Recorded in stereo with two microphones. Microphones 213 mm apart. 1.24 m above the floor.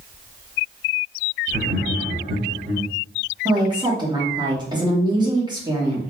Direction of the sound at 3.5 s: 20° right (ahead or behind).